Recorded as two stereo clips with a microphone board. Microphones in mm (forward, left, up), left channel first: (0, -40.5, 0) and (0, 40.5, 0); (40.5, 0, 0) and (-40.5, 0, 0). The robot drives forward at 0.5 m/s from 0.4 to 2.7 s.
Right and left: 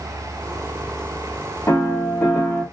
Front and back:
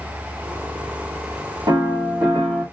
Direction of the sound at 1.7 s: 150° right.